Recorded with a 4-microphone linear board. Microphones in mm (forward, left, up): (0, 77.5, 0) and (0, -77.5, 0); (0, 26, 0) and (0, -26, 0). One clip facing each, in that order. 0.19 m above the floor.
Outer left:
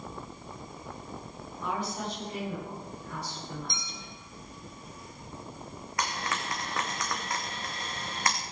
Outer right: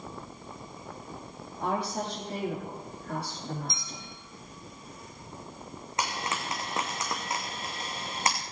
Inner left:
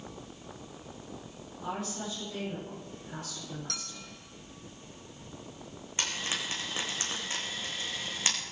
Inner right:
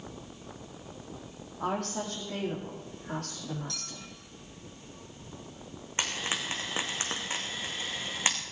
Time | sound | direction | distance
1.6 | a woman speaking | 70° right (ahead or behind) | 8.5 m
3.7 | a clink | 60° left (ahead or behind) | 5 m
6.0 | frying | 20° right (ahead or behind) | 3.5 m